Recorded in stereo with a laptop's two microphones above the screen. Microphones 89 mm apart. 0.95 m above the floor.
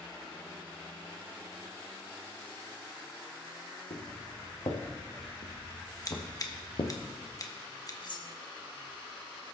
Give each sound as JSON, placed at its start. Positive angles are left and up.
{"t": 3.9, "sound": "footsteps", "side_deg": 70, "distance_m": 3.5}
{"t": 6.0, "sound": "scissors", "side_deg": 40, "distance_m": 1.1}
{"t": 8.0, "sound": "cutlery clinking", "side_deg": 50, "distance_m": 1.1}